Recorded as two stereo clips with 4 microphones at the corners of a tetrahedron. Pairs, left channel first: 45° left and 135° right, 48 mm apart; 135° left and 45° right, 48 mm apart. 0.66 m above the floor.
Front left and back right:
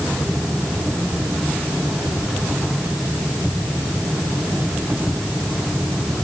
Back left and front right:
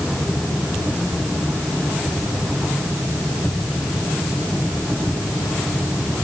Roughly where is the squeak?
No squeak in this recording.